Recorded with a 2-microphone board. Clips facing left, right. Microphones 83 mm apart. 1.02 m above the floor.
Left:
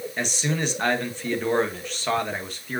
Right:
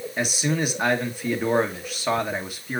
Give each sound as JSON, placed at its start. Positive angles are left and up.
{"t": 0.2, "sound": "a man speaking", "side_deg": -10, "distance_m": 1.2}